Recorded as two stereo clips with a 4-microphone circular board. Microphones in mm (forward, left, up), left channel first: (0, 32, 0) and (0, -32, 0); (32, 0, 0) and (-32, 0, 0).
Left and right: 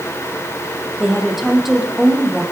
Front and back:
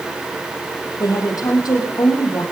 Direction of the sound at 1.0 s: 5° right.